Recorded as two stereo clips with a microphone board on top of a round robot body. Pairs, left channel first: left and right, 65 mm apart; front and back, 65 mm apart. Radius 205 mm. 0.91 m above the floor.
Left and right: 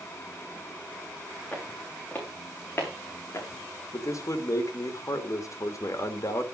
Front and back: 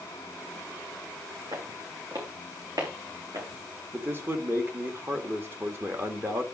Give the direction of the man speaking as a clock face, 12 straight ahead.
8 o'clock.